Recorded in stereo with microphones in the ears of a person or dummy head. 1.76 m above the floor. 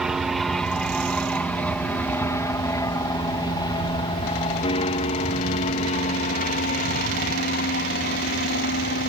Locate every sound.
0.0 s an aircraft: 5° right (ahead or behind); by 9.1 s 50° left (ahead or behind)